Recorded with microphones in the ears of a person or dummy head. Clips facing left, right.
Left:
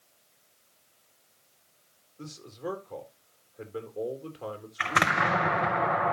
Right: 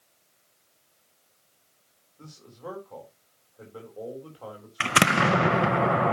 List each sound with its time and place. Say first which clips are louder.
2.2 s a man speaking: left 5 dB; 25° left (ahead or behind), 3.5 m
4.8 s an explosion: right 5 dB; 40° right (ahead or behind), 0.6 m